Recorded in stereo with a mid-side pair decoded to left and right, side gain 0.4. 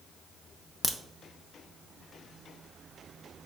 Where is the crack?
5° left, 0.6 m.